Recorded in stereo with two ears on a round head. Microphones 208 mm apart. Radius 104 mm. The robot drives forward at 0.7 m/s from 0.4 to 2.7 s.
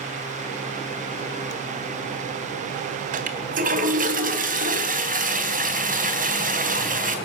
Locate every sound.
3.1 s a toilet flushing: 35° right (ahead or behind), 3.5 m